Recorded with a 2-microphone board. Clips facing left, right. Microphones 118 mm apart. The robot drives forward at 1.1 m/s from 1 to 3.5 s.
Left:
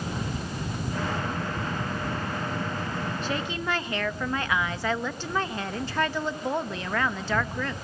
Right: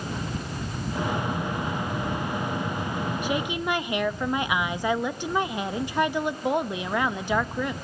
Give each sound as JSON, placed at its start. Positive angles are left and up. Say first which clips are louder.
{"t": 3.2, "sound": "a woman speaking", "louder": "right 4 dB", "side_deg": -15, "distance_m": 1.3}